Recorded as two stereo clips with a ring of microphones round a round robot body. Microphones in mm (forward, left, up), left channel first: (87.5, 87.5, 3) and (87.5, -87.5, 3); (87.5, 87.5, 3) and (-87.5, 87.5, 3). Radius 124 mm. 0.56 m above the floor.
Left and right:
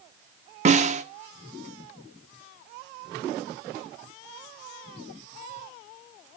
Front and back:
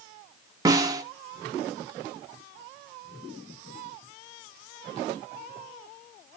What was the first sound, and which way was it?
A snare drum, 115° right.